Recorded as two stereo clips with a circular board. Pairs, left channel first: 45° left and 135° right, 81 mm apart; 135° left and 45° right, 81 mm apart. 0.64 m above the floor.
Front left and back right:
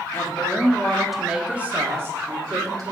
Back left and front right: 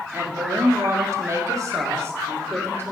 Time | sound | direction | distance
0.1 | a woman speaking | straight ahead | 1.6 m